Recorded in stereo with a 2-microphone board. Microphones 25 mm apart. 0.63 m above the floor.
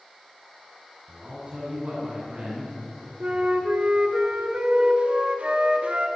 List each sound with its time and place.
1.1 s a man speaking: 55° right (ahead or behind), 7.5 m
3.2 s a flute: 50° right (ahead or behind), 2.5 m